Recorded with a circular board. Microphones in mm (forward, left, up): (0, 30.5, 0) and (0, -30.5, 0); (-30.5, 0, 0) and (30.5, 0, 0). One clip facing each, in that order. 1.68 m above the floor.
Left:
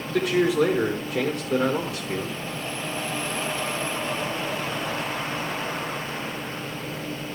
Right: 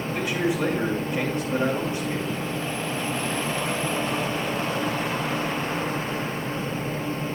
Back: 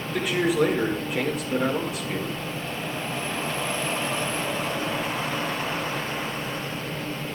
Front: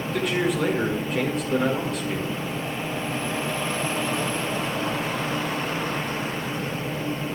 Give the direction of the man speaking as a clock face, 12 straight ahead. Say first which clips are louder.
Left 5 dB, back 2 dB; 9 o'clock.